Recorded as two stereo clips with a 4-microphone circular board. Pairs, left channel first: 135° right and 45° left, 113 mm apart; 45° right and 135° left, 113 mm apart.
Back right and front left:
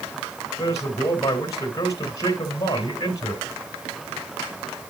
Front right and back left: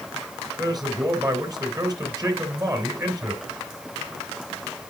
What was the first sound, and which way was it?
A man speaking, 175° left.